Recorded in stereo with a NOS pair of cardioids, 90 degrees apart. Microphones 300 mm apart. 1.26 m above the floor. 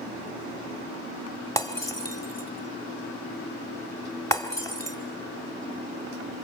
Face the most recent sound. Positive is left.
turn(degrees=10)